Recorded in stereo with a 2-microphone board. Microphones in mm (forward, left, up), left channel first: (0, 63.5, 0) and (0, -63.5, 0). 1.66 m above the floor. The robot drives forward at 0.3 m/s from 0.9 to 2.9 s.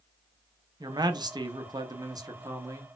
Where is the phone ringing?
I don't hear a phone ringing.